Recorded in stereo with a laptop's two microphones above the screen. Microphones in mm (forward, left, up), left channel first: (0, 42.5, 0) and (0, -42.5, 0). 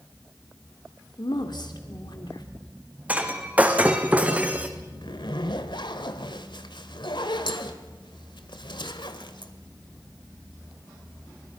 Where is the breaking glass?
20° right (ahead or behind), 3 m.